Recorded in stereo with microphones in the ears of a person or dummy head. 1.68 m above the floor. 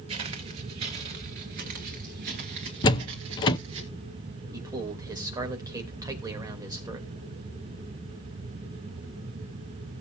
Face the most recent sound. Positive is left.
turn(degrees=-15)  # may be behind; listen again after turning